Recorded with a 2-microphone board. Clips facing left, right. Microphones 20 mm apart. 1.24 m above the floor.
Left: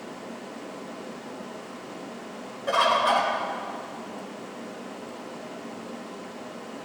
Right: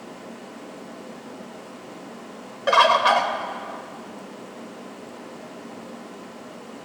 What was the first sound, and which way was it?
A bird, 60° right (ahead or behind).